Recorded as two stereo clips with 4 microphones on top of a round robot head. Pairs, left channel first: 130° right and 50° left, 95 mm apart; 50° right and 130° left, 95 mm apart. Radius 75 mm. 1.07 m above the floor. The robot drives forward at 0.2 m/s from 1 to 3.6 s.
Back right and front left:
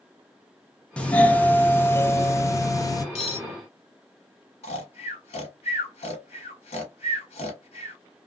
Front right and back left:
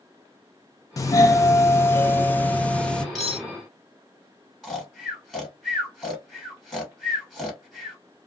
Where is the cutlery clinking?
140° right, 1.2 m.